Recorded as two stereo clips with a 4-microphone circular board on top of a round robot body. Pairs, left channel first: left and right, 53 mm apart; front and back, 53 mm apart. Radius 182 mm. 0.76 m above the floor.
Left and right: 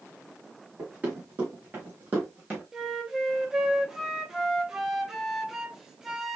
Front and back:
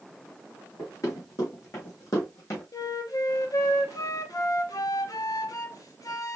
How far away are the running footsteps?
About 3 m.